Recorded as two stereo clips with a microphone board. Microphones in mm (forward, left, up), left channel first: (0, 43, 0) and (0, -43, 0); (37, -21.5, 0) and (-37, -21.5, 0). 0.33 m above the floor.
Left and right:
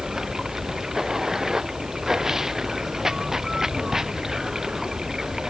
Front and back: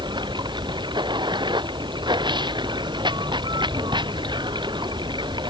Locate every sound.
0.0 s running water: 175° right